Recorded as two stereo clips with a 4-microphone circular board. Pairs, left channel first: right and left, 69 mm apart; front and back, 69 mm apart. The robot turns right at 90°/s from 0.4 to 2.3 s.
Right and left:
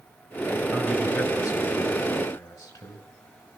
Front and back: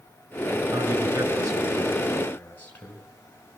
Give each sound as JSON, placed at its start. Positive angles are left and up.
{"t": 0.7, "sound": "a man speaking", "azimuth_deg": 150, "distance_m": 5.0}